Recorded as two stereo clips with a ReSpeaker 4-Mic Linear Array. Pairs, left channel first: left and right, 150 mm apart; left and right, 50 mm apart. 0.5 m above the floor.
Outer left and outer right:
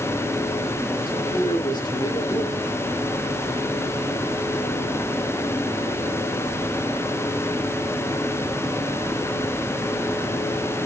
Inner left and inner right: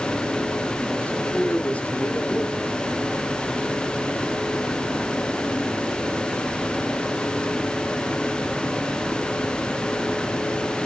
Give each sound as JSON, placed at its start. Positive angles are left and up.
{"t": 1.1, "sound": "a man speaking", "side_deg": 30, "distance_m": 1.2}